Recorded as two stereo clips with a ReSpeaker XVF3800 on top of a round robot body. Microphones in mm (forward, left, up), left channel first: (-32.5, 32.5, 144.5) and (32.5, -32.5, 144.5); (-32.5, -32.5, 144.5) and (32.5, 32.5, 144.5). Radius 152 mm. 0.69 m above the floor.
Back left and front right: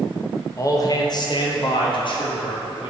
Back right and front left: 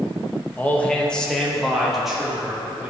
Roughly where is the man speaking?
Behind.